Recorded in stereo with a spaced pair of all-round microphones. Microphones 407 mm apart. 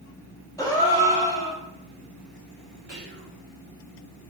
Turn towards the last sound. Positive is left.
turn(degrees=-85)